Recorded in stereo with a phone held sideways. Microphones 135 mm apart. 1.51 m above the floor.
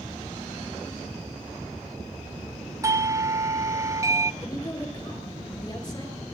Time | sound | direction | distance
2.8 | a doorbell | 25° right (ahead or behind) | 0.6 m
4.4 | a woman speaking | 25° left (ahead or behind) | 7.5 m